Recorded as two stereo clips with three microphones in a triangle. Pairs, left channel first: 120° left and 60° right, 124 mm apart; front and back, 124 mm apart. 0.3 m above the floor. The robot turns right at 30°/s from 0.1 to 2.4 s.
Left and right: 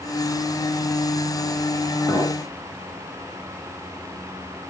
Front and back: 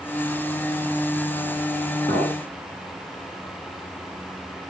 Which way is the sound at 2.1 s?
50° left.